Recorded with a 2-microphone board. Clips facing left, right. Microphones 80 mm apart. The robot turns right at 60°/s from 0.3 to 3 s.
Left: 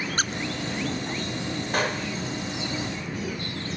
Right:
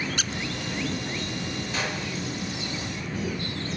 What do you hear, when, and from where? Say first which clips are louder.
0.2 s a squeak: left 4 dB; 40° left (ahead or behind), 0.6 m
1.7 s a gunshot: left 5 dB; 55° left (ahead or behind), 3.5 m; by 2.2 s 30° left (ahead or behind), 3.5 m